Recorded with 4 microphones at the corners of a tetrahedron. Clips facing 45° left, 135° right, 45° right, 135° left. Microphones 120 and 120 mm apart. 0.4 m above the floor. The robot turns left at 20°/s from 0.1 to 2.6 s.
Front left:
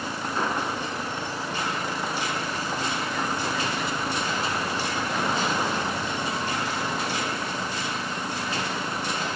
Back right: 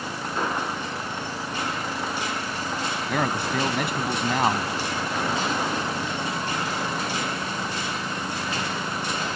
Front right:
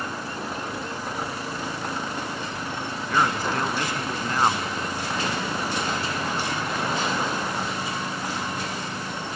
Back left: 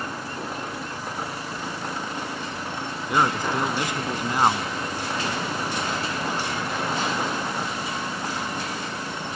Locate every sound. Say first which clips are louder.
3.1 s a man speaking: back right 3 dB, back left 1 dB; 150° right